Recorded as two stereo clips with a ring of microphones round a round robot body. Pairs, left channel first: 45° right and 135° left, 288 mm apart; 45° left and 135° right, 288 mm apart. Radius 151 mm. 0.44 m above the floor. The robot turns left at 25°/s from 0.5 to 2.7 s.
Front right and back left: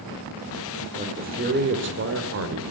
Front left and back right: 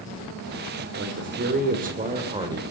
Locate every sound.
1.0 s a man speaking: 165° right, 1.9 m; by 2.6 s 150° left, 1.9 m